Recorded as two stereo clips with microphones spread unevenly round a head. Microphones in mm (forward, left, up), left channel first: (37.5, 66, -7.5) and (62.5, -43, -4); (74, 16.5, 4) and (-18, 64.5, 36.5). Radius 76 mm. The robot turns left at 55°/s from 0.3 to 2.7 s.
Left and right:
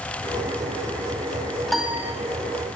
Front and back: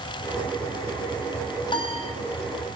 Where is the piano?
15° left, 2.5 m; by 2.1 s 10° right, 2.5 m.